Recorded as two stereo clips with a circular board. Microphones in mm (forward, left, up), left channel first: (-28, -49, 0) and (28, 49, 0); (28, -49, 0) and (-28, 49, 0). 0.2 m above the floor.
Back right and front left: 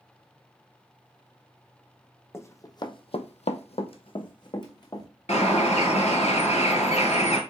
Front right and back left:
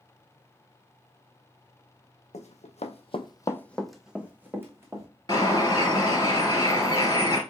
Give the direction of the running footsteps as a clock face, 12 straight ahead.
2 o'clock.